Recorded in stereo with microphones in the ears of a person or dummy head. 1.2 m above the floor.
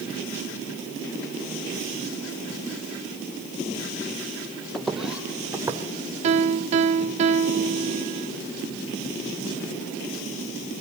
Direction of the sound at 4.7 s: 5° right (ahead or behind).